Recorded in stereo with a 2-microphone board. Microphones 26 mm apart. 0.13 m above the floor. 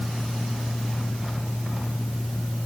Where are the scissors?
I don't hear scissors.